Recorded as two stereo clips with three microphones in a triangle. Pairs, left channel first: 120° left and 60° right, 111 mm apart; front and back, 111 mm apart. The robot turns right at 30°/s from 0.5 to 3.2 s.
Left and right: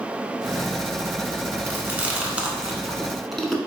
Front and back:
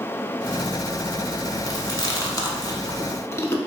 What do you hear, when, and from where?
1.7 s chewing: 10° right, 0.6 m; by 3.6 s 35° left, 0.6 m